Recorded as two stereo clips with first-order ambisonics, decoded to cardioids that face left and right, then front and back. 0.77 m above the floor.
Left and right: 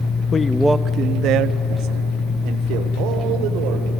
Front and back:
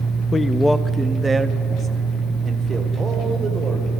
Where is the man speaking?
55° left, 0.8 m; by 3.9 s 110° right, 3.5 m.